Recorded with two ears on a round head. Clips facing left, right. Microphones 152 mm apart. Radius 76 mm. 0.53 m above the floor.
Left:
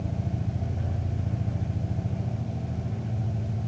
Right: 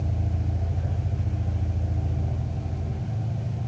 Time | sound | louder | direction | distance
0.0 | an engine running | even | 10° left (ahead or behind) | 6 m